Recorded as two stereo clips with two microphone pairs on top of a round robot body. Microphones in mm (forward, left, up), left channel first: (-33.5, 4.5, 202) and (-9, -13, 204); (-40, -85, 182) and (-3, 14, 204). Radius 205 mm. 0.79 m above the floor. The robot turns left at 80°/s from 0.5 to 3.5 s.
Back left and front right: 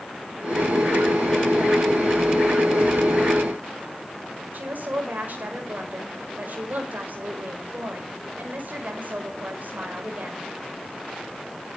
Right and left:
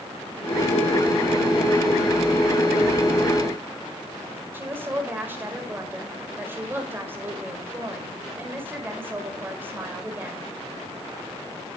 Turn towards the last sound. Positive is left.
turn(degrees=-5)